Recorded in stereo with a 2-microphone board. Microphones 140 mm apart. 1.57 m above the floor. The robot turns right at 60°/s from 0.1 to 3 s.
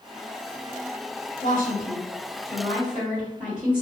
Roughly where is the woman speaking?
Left.